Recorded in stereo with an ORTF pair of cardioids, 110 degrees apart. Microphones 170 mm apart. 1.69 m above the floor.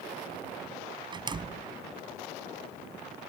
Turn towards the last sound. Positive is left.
turn(degrees=-25)